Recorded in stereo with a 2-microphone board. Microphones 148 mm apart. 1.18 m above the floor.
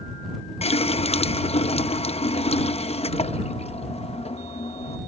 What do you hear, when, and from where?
0.6 s a running tap: 45° left (ahead or behind)